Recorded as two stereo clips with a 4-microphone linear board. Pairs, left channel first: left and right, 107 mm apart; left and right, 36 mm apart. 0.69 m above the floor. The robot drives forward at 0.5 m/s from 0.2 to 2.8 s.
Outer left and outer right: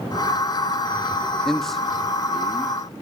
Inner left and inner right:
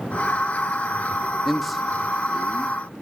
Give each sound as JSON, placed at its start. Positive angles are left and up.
{"t": 1.4, "sound": "a man speaking", "side_deg": 5, "distance_m": 0.8}